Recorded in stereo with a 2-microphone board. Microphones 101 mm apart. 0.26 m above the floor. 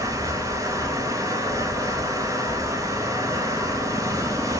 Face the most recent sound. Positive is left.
turn(degrees=-35)  # may be behind; listen again after turning